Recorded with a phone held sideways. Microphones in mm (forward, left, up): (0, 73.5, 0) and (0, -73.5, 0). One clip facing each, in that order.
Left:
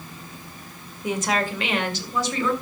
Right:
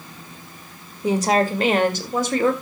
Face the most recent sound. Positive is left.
turn(degrees=-55)  # may be behind; listen again after turning